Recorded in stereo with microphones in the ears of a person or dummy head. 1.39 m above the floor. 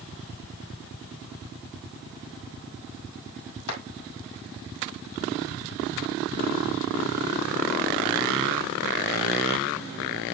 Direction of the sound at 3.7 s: 85° left.